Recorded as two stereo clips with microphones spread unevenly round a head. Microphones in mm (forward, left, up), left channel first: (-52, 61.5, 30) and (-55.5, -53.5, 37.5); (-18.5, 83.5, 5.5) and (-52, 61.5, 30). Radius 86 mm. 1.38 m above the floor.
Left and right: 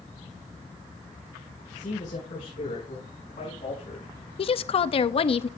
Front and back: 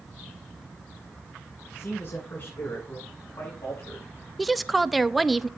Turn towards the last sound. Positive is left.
turn(degrees=100)